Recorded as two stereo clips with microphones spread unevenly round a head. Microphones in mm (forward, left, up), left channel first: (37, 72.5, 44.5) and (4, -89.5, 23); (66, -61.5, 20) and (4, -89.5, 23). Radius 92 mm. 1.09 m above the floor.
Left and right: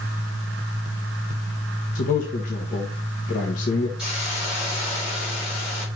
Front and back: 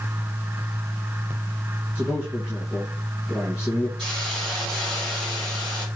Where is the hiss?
175° left, 4 m.